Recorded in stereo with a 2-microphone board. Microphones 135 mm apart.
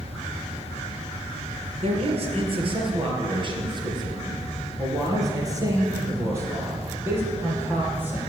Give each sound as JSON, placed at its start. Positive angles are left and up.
{"t": 1.8, "sound": "a man speaking", "side_deg": -50, "distance_m": 4.0}